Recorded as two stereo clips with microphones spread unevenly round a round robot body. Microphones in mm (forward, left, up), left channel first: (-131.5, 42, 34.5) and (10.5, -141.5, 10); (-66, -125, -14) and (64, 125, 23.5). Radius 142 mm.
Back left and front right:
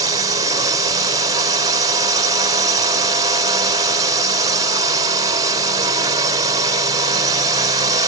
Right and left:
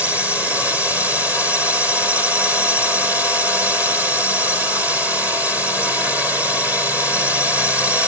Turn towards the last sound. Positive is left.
turn(degrees=-35)